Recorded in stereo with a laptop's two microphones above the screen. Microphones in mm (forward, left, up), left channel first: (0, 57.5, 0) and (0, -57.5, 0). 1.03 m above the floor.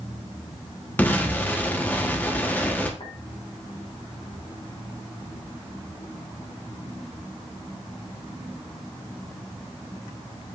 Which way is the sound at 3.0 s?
50° left (ahead or behind).